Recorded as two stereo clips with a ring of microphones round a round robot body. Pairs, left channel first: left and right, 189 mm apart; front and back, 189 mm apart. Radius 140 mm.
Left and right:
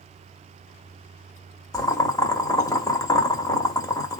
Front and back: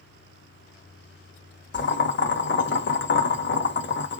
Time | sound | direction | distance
1.7 | boiling | 20° left | 1.4 m